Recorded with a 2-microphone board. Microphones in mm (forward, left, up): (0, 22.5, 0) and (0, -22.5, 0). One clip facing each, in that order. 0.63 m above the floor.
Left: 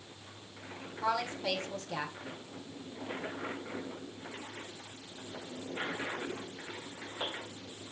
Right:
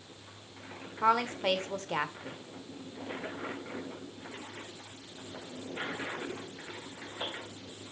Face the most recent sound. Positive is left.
turn(degrees=-45)  # may be behind; listen again after turning